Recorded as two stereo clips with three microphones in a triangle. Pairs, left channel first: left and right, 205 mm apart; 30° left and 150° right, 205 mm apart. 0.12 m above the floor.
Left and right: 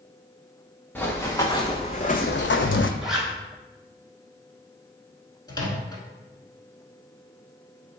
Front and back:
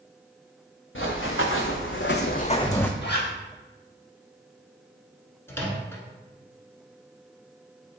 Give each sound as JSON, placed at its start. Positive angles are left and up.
{"t": 0.9, "sound": "running footsteps", "azimuth_deg": 10, "distance_m": 1.2}
{"t": 3.0, "sound": "a zipper", "azimuth_deg": 0, "distance_m": 1.1}
{"t": 5.5, "sound": "a microwave", "azimuth_deg": 80, "distance_m": 0.9}